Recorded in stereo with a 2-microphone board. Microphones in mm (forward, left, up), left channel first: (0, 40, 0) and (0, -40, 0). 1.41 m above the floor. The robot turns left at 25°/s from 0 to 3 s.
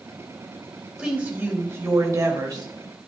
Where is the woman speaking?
15° right, 2.0 m; by 2.7 s 55° right, 2.0 m.